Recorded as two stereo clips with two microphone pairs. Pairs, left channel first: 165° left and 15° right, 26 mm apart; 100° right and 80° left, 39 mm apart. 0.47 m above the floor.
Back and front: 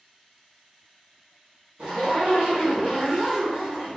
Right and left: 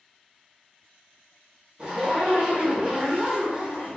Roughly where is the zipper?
Ahead.